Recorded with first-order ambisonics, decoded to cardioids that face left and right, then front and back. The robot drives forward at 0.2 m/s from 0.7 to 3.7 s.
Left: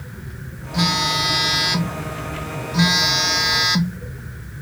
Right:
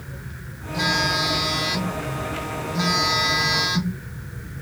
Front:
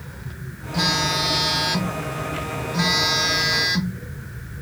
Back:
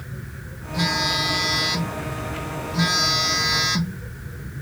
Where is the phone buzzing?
65° left, 1.2 m; by 4.0 s 100° left, 1.1 m.